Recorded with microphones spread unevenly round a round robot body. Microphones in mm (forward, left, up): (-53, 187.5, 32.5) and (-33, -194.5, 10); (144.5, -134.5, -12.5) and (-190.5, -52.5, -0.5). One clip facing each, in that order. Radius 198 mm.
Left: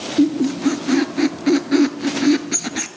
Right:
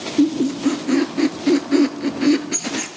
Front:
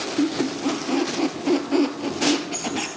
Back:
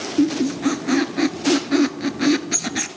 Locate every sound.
0.2 s a squeak: 165° left, 1.1 m